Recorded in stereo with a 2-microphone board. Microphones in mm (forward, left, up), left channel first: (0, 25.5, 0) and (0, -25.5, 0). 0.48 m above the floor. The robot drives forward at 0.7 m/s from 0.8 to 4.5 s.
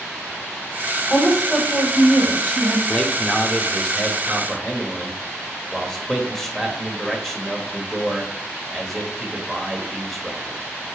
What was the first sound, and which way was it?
A woman speaking, 5° left (ahead or behind).